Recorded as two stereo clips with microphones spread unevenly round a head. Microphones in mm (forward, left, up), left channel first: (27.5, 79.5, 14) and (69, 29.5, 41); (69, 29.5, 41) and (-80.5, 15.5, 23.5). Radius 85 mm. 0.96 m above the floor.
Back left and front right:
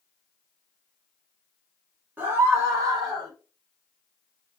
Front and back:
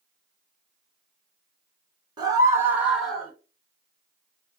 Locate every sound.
2.2 s a scream: 130° right, 1.2 m; by 3.3 s 85° right, 1.4 m